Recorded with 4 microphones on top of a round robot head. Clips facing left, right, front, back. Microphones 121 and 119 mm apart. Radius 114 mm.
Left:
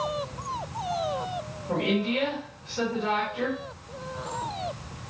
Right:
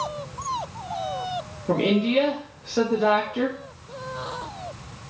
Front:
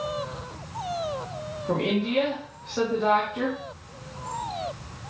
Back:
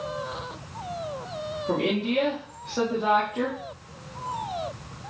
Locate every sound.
1.7 s a woman speaking: 95° right, 2 m